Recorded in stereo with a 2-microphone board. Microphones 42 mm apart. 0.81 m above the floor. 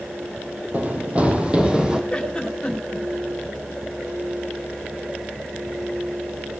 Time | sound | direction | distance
0.7 | running footsteps | 35° right (ahead or behind) | 1.9 m
2.1 | a giggle | 15° left (ahead or behind) | 2.5 m